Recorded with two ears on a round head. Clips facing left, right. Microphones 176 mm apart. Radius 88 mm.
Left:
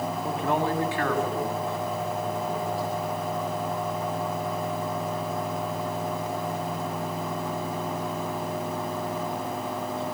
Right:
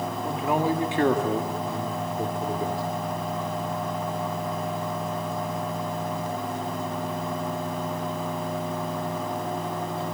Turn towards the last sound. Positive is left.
turn(degrees=-70)  # may be behind; listen again after turning